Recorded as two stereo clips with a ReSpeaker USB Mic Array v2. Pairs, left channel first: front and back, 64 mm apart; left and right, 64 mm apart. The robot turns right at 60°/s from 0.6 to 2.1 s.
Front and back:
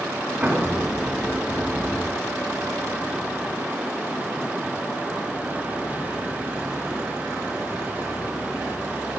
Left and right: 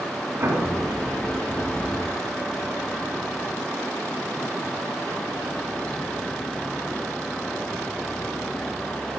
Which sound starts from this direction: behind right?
An explosion, at 0.4 s.